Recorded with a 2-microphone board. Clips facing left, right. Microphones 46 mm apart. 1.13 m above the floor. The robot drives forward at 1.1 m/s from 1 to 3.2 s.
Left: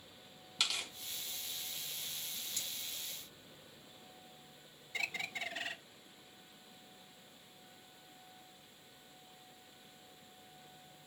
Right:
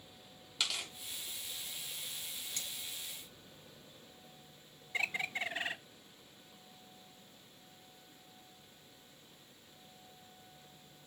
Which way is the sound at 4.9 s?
20° right (ahead or behind).